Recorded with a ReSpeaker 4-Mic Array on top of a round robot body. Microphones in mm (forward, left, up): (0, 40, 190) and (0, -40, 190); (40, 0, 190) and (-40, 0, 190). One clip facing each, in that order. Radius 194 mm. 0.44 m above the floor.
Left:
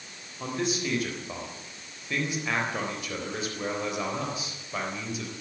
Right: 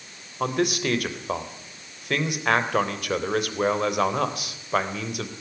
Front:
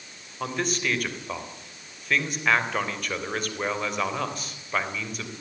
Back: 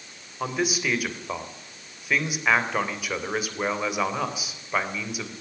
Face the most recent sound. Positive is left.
turn(degrees=-100)